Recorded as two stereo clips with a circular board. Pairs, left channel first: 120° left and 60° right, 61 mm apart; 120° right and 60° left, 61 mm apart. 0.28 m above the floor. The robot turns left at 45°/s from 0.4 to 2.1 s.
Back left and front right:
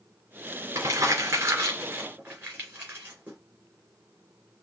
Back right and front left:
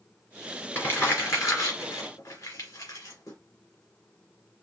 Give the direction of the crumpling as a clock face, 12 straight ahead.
2 o'clock.